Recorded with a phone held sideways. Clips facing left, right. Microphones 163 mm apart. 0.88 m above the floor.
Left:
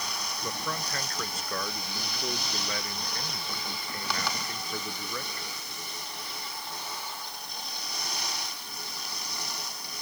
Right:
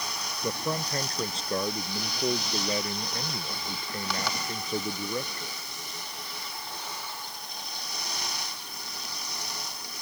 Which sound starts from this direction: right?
A man speaking, at 0.4 s.